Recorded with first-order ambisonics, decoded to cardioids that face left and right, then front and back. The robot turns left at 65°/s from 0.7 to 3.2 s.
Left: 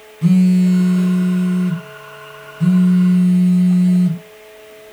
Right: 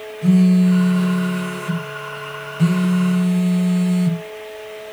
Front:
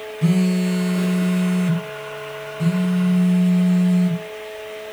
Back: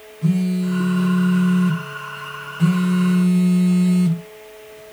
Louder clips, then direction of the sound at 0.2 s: Left 1 dB, front 2 dB; 25° left.